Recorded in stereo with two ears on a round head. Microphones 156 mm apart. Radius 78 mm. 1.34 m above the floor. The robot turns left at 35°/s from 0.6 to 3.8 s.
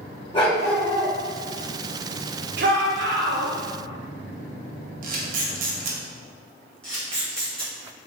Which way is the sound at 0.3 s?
30° left (ahead or behind).